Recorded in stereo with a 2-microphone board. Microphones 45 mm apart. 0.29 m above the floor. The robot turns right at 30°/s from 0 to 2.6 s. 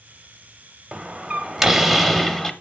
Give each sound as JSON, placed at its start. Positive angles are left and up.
{"t": 0.9, "sound": "a door slam", "azimuth_deg": -30, "distance_m": 0.7}